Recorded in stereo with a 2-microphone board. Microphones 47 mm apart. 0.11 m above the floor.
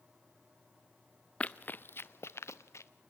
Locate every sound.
1.4 s running footsteps: 25° left (ahead or behind), 0.6 m; by 2.9 s 80° left, 1.1 m